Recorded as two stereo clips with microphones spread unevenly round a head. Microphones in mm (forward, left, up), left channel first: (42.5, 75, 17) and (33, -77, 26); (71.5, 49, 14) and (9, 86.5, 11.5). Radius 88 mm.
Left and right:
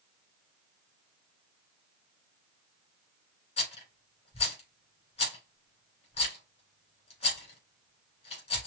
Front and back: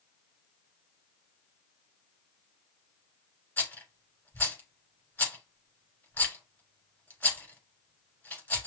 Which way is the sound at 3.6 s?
40° left.